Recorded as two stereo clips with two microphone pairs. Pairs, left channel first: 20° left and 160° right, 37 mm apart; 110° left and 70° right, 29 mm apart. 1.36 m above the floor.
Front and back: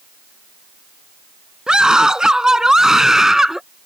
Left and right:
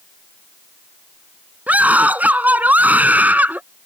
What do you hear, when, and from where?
1.7 s a scream: 90° right; by 3.6 s 80° right